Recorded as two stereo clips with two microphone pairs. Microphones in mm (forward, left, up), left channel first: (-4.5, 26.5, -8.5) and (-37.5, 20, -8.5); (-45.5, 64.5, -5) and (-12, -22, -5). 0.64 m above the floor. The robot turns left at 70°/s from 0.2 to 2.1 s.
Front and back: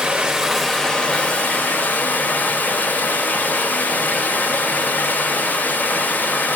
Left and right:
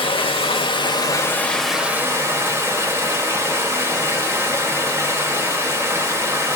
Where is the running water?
125° left, 1.6 m; by 6.6 s 5° right, 1.6 m.